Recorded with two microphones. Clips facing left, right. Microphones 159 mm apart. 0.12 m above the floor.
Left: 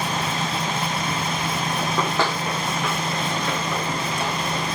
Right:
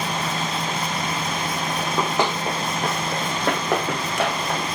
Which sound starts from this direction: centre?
Running footsteps, at 1.8 s.